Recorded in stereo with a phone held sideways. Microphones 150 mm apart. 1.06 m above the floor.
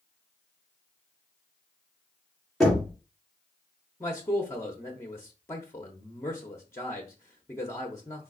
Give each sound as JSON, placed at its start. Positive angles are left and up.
{"t": 2.6, "sound": "knocking", "side_deg": 0, "distance_m": 2.0}
{"t": 4.0, "sound": "a man speaking", "side_deg": 20, "distance_m": 0.8}